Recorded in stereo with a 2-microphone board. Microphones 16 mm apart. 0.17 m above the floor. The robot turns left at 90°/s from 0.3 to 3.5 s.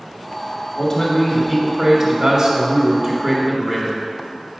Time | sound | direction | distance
0.8 | a man speaking | 65° left | 1.3 m